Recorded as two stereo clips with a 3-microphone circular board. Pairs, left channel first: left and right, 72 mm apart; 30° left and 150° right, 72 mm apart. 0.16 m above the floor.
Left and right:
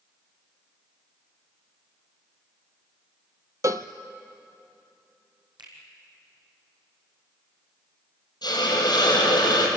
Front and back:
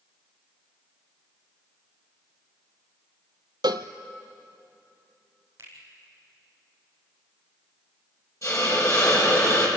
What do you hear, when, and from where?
3.6 s a cowbell: 135° right, 0.9 m
5.6 s a finger snap: 95° right, 5 m
8.4 s a hiss: 80° left, 5 m